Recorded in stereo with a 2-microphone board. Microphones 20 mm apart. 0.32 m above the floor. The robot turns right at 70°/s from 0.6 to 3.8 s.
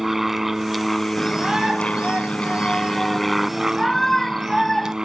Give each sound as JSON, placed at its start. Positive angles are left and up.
{"t": 0.0, "sound": "an aircraft", "azimuth_deg": -15}
{"t": 1.2, "sound": "a shout", "azimuth_deg": -165}